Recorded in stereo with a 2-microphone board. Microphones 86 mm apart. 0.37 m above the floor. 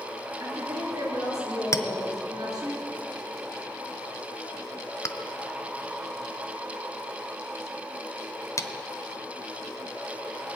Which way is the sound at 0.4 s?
50° right (ahead or behind).